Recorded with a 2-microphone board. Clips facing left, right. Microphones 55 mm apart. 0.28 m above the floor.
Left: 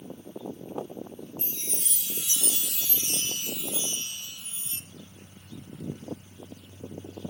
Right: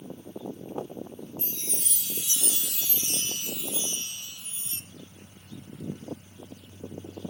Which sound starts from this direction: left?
A chime, at 1.4 s.